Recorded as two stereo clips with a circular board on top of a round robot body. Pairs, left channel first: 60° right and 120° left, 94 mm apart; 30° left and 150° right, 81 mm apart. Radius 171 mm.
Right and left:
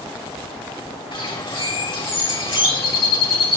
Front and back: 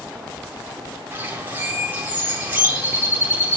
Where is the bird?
85° right, 4 m.